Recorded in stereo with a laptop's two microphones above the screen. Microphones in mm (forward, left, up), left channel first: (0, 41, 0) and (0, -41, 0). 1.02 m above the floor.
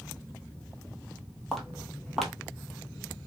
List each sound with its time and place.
1.5 s footsteps: centre (ahead or behind), 1.2 m